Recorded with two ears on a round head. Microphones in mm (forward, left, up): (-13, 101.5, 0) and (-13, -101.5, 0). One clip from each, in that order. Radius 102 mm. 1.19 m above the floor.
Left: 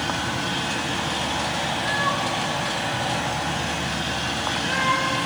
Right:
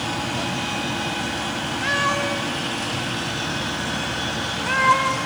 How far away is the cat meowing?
About 1.1 m.